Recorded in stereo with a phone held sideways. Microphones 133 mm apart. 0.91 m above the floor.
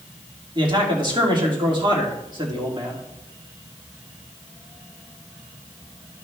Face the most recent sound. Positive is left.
turn(degrees=-35)  # may be behind; listen again after turning